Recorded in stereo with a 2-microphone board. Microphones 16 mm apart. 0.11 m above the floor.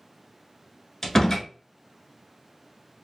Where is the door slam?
30° left (ahead or behind), 0.8 m.